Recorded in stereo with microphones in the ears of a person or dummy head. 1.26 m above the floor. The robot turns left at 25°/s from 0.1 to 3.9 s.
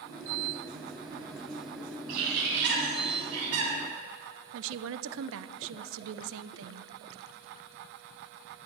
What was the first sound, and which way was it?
A bird, 50° right.